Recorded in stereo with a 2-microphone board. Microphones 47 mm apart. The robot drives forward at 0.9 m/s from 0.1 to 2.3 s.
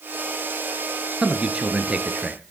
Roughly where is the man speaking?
Right.